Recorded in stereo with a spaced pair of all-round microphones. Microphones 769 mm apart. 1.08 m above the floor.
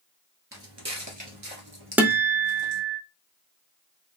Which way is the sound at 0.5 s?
20° right (ahead or behind).